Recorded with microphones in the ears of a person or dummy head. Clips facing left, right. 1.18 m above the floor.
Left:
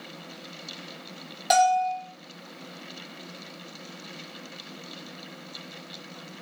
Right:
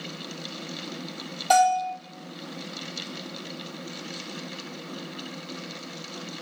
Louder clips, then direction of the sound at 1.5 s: Even; 20° left (ahead or behind).